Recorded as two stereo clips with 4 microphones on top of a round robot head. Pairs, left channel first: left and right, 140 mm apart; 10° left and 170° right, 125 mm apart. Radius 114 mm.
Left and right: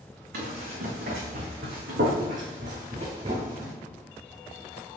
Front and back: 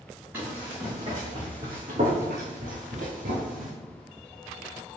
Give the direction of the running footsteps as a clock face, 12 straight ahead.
3 o'clock.